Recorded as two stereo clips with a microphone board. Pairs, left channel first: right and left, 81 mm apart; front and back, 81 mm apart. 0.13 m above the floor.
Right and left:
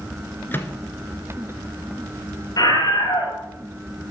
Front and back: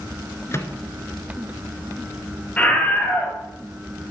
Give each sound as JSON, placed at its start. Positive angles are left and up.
{"t": 0.5, "sound": "a microwave", "azimuth_deg": -40, "distance_m": 1.2}
{"t": 2.6, "sound": "a scream", "azimuth_deg": -70, "distance_m": 2.5}